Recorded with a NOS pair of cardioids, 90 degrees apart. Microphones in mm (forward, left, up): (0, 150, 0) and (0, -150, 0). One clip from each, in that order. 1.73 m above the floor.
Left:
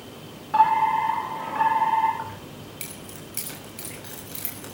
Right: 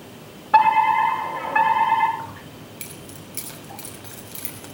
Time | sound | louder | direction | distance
0.5 | a fire alarm | right 4 dB | 55° right | 5.5 m
2.2 | keys jangling | even | 5° left | 6 m